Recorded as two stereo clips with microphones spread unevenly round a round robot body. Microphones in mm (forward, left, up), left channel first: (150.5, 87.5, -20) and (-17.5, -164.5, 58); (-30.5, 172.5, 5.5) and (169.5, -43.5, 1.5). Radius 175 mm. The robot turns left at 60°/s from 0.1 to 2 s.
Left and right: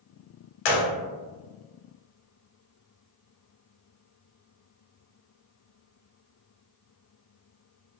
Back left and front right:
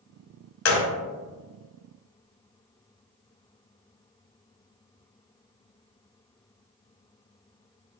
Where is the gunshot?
85° left, 0.5 m; by 0.9 s 70° left, 0.5 m.